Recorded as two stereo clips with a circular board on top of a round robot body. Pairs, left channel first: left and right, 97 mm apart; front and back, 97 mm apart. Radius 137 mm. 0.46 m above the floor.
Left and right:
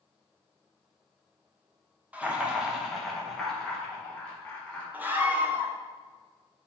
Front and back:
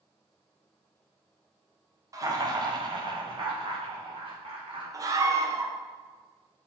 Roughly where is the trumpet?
I don't hear a trumpet.